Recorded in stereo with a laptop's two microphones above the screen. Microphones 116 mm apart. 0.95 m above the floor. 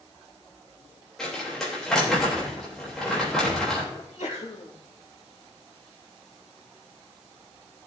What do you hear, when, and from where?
1.2 s crumpling: 5° left (ahead or behind), 3.5 m
4.0 s a sneeze: 70° left (ahead or behind), 2.5 m